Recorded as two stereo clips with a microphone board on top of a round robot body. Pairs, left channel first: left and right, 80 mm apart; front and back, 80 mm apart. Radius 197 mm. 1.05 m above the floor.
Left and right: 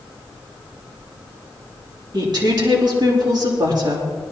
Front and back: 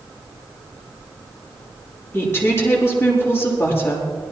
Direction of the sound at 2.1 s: 60° right.